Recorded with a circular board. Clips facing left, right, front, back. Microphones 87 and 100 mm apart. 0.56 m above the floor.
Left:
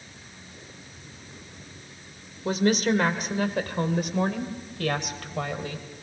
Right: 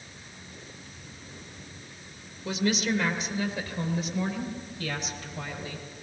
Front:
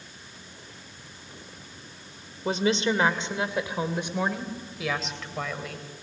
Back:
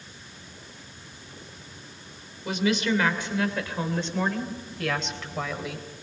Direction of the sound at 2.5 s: 50° left.